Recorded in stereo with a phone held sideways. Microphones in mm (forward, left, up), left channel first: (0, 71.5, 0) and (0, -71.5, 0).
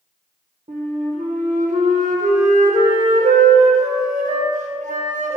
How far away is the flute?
About 0.6 m.